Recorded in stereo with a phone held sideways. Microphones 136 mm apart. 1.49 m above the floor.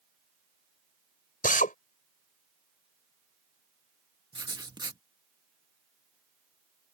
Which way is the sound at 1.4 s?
80° left.